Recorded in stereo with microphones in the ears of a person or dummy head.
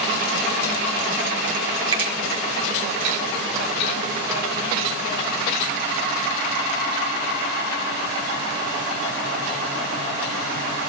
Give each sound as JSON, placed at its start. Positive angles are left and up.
{"t": 1.9, "sound": "a finger snap", "side_deg": -25, "distance_m": 1.3}